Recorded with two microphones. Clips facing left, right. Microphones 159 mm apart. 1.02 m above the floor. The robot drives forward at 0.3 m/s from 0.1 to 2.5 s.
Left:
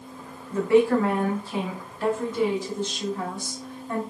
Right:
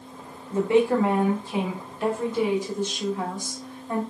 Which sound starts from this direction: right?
A woman speaking, at 0.5 s.